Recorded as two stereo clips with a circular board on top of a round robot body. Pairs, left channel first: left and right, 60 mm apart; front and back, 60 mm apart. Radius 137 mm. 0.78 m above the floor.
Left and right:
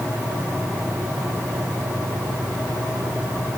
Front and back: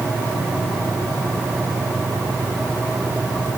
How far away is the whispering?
I don't hear whispering.